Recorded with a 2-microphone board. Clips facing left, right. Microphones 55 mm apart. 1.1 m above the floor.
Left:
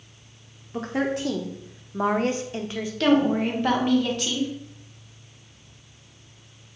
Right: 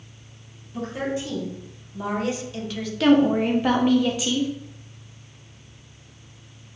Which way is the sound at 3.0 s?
5° right (ahead or behind).